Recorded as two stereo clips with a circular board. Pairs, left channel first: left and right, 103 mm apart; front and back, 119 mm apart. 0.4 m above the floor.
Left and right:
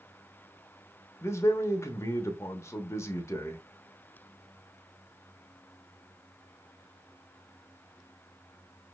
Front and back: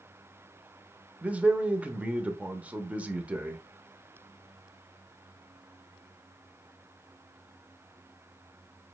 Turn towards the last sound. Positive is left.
turn(degrees=115)